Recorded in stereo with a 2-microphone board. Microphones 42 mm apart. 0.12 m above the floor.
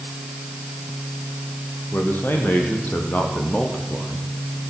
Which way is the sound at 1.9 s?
60° left (ahead or behind).